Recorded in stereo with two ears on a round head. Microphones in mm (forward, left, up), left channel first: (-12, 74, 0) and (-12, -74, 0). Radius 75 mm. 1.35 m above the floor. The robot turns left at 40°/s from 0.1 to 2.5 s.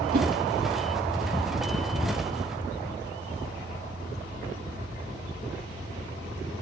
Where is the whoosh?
55° right (ahead or behind), 1.6 m.